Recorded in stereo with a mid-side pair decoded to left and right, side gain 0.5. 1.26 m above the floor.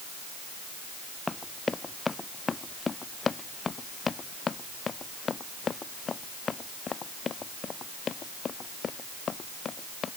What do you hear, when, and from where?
1.3 s running footsteps: 20° left; by 10.1 s 45° left